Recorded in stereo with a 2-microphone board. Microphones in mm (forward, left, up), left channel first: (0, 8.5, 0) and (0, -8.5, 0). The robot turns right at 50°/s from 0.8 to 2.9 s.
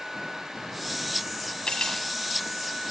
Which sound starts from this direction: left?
Cutlery clinking, at 1.7 s.